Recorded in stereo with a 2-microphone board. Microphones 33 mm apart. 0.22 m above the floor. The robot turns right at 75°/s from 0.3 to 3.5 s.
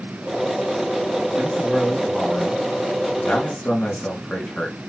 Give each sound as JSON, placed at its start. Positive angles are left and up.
{"t": 1.4, "sound": "a man speaking", "azimuth_deg": -35, "distance_m": 3.0}